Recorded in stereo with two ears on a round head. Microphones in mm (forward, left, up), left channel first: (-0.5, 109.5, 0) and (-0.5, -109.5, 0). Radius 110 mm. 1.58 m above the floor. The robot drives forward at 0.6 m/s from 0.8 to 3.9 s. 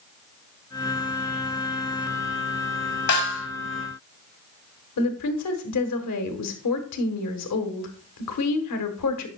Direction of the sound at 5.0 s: 75° left (ahead or behind).